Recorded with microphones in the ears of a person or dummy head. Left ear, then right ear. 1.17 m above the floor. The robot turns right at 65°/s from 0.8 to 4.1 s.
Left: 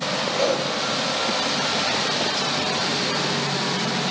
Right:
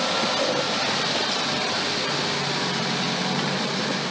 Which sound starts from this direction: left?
A whoosh, at 0.4 s.